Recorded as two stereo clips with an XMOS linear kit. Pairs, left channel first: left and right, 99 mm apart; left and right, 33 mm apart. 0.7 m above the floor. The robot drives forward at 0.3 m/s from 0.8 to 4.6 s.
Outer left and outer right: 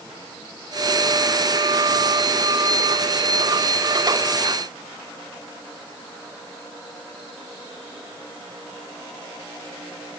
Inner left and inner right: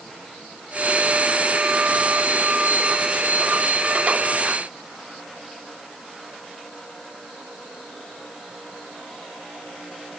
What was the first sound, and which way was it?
Only background noise.